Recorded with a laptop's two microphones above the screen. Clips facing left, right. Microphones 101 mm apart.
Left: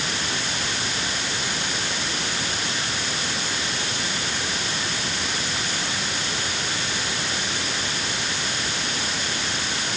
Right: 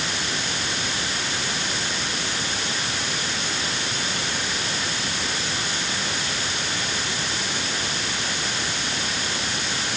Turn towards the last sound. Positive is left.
No sound to turn to.